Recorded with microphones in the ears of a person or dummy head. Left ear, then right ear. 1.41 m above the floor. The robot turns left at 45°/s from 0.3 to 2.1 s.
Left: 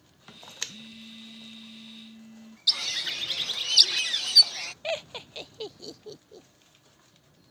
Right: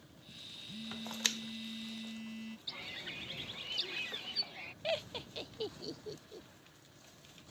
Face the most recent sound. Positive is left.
turn(degrees=30)  # may be behind; listen again after turning